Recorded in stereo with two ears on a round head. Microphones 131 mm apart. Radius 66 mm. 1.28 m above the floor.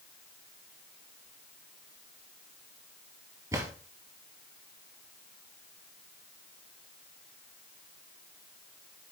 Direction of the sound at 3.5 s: 20° right (ahead or behind).